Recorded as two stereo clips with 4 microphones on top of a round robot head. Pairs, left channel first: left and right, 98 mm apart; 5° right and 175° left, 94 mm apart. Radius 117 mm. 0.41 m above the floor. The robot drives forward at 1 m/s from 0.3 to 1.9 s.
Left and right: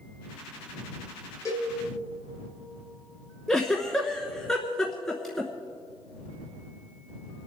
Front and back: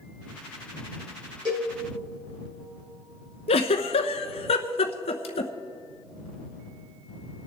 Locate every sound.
1.4 s a cowbell: 145° left, 4.5 m; by 1.7 s 150° left, 5 m
3.5 s a giggle: 5° left, 0.9 m